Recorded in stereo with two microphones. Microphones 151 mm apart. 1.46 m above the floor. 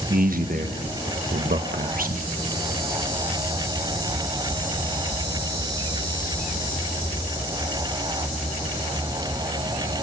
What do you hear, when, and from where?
0.1 s a man speaking: 65° right (ahead or behind), 1.1 m